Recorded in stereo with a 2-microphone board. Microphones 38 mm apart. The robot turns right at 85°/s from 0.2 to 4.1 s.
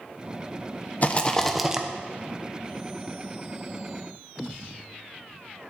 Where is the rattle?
130° left, 0.9 m; by 1.9 s 155° right, 0.9 m.